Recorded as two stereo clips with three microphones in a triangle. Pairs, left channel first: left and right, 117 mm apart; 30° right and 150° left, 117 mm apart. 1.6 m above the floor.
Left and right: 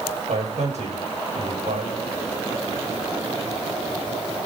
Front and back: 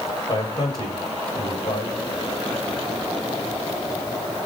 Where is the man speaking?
85° right, 8 m.